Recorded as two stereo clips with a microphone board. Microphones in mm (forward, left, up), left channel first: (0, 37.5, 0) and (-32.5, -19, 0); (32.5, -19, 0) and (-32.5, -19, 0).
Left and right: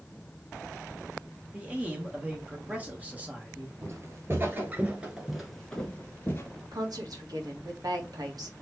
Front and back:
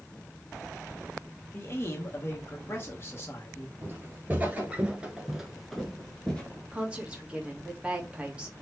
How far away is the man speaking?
About 1.5 m.